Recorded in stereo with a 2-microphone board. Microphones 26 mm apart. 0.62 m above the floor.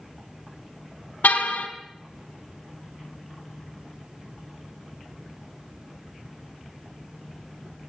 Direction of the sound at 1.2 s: 75° left (ahead or behind).